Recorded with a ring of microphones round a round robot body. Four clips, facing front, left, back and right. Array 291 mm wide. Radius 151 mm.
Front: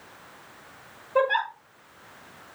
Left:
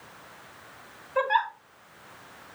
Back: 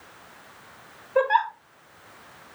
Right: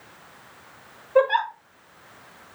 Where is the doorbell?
I don't hear a doorbell.